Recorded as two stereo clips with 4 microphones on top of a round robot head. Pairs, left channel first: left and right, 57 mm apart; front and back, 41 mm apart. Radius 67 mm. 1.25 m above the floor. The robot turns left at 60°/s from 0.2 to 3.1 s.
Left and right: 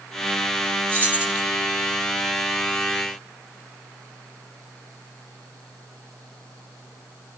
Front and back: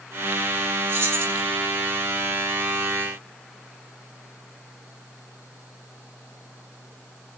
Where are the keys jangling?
140° right, 5 m; by 1.4 s 170° right, 5 m.